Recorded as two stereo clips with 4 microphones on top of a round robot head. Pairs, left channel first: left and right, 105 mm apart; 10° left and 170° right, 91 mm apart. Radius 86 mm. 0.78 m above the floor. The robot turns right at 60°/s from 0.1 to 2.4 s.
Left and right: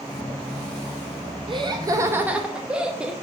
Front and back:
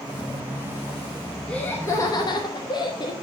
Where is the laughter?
65° right, 0.9 m; by 3.1 s 10° right, 0.9 m.